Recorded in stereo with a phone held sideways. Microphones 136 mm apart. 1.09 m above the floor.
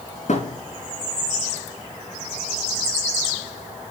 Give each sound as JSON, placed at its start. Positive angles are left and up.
{"t": 0.3, "sound": "a thud", "side_deg": 60, "distance_m": 3.0}